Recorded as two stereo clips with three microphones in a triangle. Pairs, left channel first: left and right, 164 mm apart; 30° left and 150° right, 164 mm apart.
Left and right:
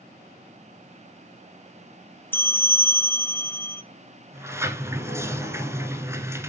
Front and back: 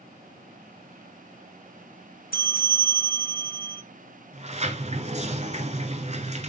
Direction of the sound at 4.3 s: 155° right.